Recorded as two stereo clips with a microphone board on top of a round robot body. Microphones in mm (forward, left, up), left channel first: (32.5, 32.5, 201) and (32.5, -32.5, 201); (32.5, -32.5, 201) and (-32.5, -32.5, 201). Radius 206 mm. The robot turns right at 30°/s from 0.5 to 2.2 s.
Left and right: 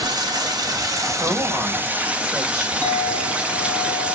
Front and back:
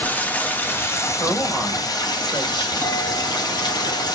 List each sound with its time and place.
0.0 s running water: 70° right, 0.8 m; by 4.2 s 15° right, 0.8 m
1.2 s a woman speaking: 60° right, 3 m; by 2.7 s 30° right, 3 m
2.8 s a clink: 55° right, 4 m